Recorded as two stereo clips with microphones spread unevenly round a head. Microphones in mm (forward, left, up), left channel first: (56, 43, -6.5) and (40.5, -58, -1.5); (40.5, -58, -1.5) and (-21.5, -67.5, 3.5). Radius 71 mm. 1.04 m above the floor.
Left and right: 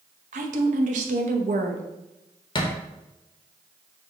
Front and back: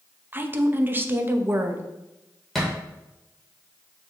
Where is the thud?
100° left, 0.8 m.